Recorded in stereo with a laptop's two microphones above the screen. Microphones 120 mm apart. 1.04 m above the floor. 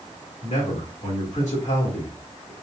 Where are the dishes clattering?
No dishes clattering in this recording.